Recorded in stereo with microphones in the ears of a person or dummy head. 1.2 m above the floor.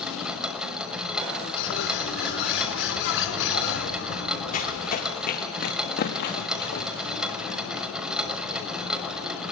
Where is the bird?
80° left, 5 m.